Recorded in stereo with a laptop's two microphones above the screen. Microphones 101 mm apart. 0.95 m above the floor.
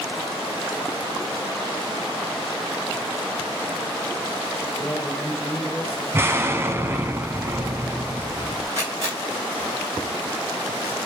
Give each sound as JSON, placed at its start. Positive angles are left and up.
{"t": 4.8, "sound": "a man speaking", "side_deg": 10, "distance_m": 3.0}
{"t": 6.1, "sound": "an explosion", "side_deg": -25, "distance_m": 1.1}
{"t": 8.8, "sound": "a camera shutter", "side_deg": -30, "distance_m": 5.0}